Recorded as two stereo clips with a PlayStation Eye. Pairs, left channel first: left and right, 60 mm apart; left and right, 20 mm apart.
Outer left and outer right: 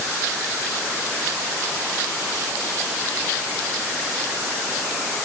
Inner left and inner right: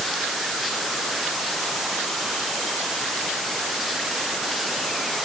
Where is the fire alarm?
No fire alarm in this recording.